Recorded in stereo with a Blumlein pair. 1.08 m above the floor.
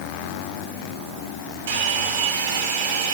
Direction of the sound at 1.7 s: 55° right.